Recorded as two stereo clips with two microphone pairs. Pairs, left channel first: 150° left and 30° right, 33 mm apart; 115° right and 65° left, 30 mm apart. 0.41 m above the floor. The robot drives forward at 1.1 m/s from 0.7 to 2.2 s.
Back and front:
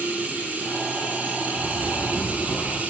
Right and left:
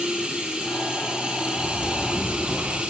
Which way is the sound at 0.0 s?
10° left.